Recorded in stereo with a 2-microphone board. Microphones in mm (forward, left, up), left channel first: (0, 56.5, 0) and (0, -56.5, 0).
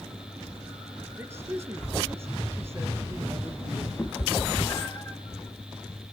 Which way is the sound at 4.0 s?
20° left (ahead or behind).